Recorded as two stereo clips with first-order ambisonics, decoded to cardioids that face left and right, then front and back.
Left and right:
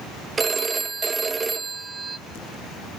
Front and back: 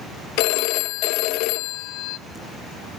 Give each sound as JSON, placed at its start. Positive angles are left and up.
{"t": 0.4, "sound": "a phone ringing", "azimuth_deg": -15, "distance_m": 0.6}